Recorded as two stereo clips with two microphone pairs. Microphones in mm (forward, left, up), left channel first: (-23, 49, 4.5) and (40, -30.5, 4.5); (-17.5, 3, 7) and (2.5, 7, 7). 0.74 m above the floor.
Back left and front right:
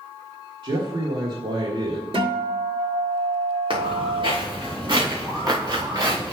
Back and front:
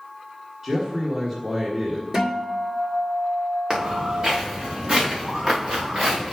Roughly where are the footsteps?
Ahead.